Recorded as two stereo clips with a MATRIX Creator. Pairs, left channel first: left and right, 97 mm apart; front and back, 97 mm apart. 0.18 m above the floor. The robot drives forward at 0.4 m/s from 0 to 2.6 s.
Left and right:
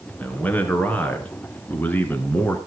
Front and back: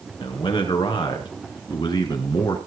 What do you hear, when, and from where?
0.2 s a man speaking: 15° left, 3 m; by 2.6 s 25° left, 2.5 m